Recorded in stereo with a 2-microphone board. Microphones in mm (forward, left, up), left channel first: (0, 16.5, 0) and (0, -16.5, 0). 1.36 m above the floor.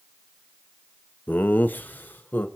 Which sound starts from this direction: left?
Laughter, at 1.3 s.